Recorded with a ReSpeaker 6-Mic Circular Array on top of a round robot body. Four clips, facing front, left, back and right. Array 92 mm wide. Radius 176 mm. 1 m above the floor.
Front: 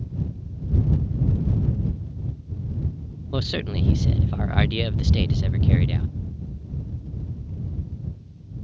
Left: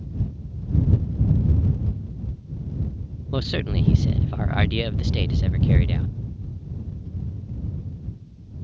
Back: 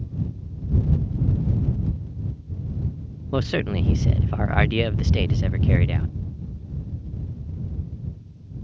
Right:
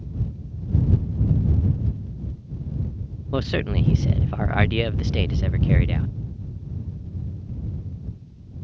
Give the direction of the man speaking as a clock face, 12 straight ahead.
5 o'clock.